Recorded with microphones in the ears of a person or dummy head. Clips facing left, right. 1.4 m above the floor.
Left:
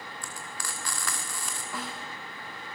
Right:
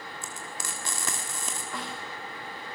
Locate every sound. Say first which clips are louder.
0.2 s frying: right 1 dB; 25° right (ahead or behind), 1.6 m
1.7 s a snare drum: left 1 dB; centre (ahead or behind), 3 m